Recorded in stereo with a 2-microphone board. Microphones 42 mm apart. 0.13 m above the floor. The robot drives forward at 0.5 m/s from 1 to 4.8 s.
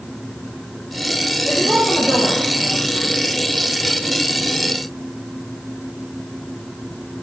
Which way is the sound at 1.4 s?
45° right (ahead or behind).